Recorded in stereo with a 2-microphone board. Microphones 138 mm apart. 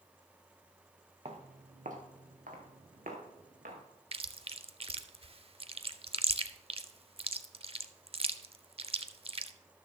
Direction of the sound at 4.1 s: 45° right (ahead or behind).